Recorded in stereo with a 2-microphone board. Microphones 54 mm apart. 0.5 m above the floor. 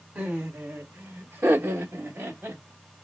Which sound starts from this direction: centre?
Laughter, at 0.1 s.